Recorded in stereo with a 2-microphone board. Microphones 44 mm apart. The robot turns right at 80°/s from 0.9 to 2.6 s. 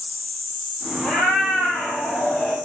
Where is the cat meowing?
15° left, 1.8 m; by 2.5 s 140° left, 1.8 m.